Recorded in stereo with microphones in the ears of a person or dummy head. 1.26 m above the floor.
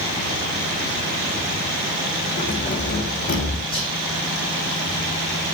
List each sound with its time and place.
2.4 s keys jangling: 40° left (ahead or behind), 3.5 m; by 3.6 s 50° left (ahead or behind), 3 m
3.7 s whispering: 25° left (ahead or behind), 1.1 m